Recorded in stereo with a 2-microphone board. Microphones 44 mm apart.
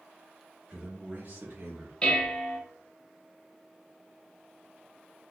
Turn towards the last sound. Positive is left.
turn(degrees=15)  # may be behind; listen again after turning